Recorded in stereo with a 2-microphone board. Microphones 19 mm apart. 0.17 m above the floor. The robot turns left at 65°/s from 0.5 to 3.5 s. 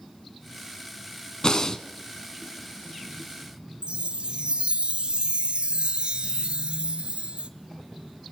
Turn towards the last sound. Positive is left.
turn(degrees=-65)  # may be behind; listen again after turning